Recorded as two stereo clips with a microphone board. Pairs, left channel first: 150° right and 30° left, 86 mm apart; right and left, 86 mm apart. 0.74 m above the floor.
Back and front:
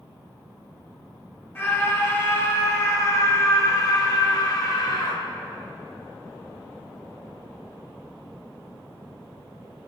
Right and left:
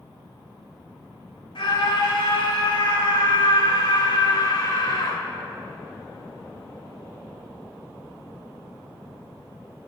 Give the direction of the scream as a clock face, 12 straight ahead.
3 o'clock.